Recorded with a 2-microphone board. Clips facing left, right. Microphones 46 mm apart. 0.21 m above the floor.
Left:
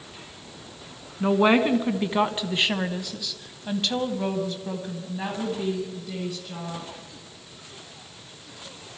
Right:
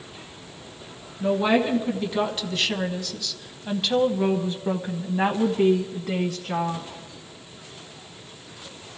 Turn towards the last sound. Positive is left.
turn(degrees=-50)  # may be behind; listen again after turning